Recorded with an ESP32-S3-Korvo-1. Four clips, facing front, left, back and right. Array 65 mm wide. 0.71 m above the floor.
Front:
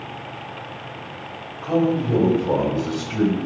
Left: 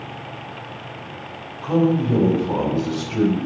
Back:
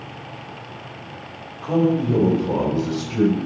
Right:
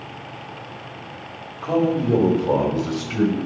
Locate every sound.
1.6 s a man speaking: 90° right, 5 m; by 3.4 s 70° right, 4.5 m